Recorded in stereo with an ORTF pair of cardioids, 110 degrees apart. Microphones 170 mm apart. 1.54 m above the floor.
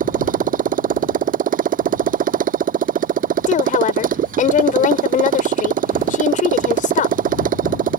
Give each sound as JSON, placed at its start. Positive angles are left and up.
{"t": 0.0, "sound": "a motorcycle", "azimuth_deg": -55}
{"t": 3.5, "sound": "a woman speaking", "azimuth_deg": 50}